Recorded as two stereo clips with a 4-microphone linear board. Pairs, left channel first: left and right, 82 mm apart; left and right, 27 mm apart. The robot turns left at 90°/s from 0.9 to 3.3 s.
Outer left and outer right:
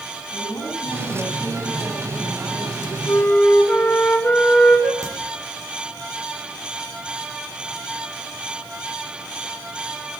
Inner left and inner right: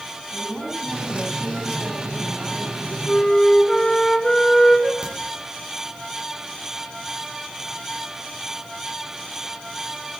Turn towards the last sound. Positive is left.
turn(degrees=-40)  # may be behind; listen again after turning